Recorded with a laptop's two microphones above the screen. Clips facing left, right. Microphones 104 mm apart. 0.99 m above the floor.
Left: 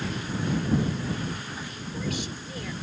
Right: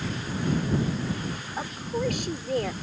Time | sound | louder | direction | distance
1.6 | a woman speaking | right 6 dB | 60° right (ahead or behind) | ?